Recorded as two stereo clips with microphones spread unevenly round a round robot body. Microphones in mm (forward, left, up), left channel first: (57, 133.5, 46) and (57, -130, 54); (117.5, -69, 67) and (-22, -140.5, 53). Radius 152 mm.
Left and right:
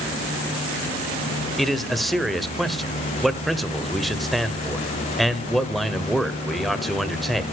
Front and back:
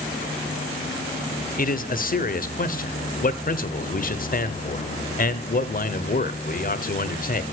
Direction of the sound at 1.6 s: Straight ahead.